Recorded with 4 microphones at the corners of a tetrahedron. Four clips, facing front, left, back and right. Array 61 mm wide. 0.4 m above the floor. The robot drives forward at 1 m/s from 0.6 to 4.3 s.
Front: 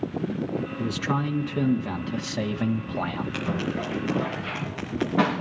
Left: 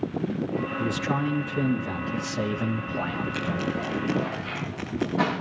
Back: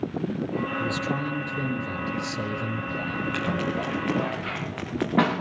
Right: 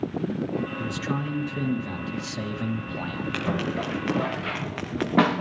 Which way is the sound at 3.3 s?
110° right.